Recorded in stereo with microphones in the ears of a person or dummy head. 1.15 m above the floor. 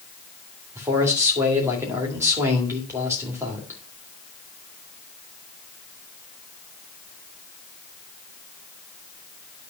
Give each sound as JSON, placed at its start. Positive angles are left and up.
{"t": 0.8, "sound": "a man speaking", "side_deg": -15, "distance_m": 2.0}